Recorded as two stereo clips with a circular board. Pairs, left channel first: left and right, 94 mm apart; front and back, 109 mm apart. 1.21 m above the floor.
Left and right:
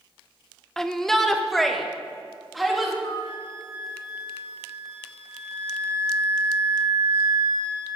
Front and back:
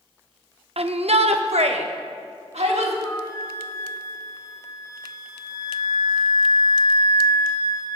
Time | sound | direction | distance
0.8 | a shout | 175° left | 0.8 m
3.0 | a flute | 55° left | 1.8 m